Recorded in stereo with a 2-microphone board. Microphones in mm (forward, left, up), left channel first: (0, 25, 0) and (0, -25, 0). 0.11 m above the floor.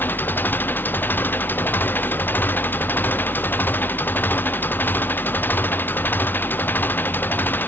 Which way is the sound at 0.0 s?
45° left (ahead or behind).